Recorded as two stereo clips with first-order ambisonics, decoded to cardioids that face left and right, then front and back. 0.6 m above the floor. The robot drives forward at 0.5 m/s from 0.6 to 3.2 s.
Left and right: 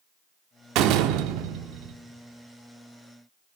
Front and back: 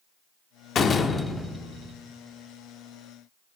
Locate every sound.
0.8 s a door slam: 60° right, 0.6 m; by 1.9 s 120° right, 0.6 m